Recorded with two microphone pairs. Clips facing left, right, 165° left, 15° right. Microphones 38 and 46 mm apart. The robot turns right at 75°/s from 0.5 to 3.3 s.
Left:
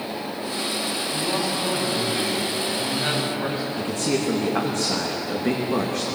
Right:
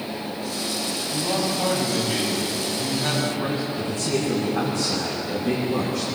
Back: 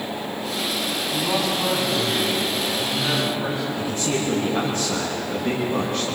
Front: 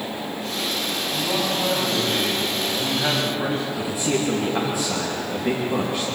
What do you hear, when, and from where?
1.1 s a man speaking: 125° right, 9.5 m; by 3.7 s 40° left, 9.5 m
3.8 s a man speaking: 65° left, 2.5 m